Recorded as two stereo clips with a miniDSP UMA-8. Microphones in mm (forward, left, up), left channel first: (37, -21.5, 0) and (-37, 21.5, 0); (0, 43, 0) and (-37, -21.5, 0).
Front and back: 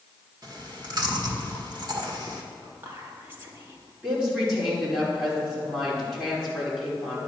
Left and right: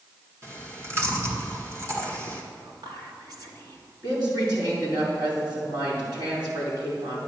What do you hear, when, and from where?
0.4 s chewing: 170° right, 1.8 m
2.6 s whispering: 145° right, 2.5 m
4.0 s a woman speaking: 130° right, 5 m